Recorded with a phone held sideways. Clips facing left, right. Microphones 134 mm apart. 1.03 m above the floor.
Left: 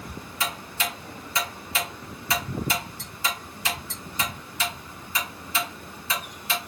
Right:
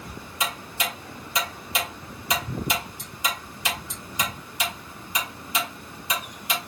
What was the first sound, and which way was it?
Ticking, 15° right (ahead or behind).